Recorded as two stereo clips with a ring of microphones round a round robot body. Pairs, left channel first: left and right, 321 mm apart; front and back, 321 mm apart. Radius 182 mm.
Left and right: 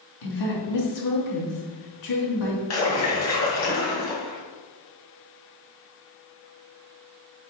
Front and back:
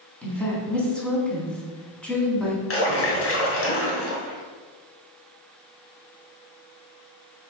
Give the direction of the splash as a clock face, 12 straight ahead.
10 o'clock.